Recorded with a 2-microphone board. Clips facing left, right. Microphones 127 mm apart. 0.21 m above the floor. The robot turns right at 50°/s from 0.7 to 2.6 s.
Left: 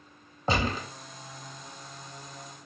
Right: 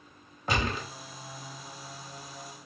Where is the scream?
I don't hear a scream.